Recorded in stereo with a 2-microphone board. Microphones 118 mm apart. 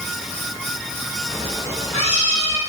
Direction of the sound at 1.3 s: 70° left (ahead or behind).